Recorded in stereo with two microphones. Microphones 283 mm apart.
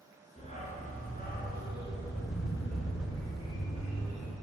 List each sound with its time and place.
0.4 s a dog barking: 20° left (ahead or behind), 3.5 m; by 4.3 s 70° left (ahead or behind), 3 m